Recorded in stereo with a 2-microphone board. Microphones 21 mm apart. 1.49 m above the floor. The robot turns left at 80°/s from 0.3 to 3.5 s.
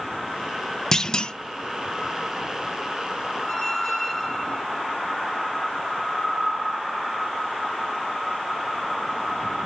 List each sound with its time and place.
0.9 s a clunk: 140° left, 0.7 m; by 1.3 s 105° left, 0.7 m
3.5 s a squeak: 30° left (ahead or behind), 3.5 m